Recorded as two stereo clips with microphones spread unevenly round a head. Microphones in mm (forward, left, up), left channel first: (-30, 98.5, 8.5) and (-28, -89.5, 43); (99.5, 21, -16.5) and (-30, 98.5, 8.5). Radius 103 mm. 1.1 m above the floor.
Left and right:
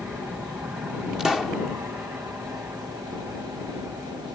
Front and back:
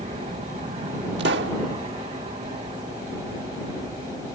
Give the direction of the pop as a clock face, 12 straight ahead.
6 o'clock.